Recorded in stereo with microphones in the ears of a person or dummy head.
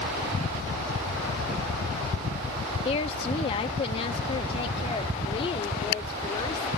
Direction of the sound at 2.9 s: 35° left (ahead or behind).